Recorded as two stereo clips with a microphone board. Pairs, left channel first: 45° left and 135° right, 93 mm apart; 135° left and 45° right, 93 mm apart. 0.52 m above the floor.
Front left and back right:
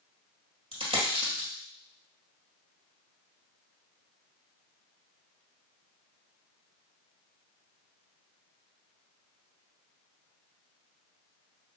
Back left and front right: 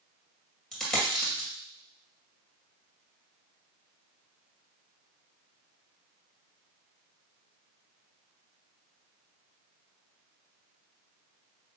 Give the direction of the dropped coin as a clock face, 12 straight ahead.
5 o'clock.